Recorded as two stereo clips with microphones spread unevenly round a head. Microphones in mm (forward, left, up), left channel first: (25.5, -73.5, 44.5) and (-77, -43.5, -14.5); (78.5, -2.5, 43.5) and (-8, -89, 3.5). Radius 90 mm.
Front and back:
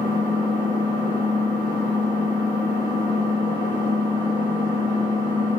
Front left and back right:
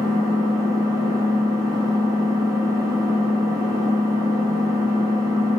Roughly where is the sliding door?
No sliding door in this recording.